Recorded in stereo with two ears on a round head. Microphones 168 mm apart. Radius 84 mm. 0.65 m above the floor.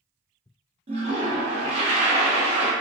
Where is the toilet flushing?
30° right (ahead or behind), 0.6 m.